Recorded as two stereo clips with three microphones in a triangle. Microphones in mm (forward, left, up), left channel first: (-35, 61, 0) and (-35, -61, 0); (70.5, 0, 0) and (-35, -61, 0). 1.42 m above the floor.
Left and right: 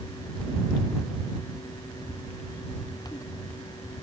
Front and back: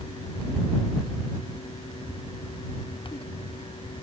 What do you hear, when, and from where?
Only background noise.